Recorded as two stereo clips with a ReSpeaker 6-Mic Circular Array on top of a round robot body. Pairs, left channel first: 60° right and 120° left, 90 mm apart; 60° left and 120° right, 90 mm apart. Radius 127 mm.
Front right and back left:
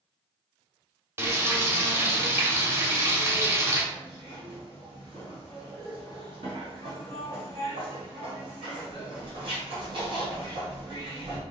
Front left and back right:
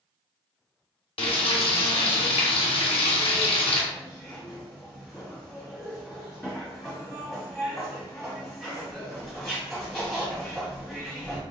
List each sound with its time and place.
1.2 s frying: 55° left, 1.0 m
3.9 s a zipper: 150° left, 1.8 m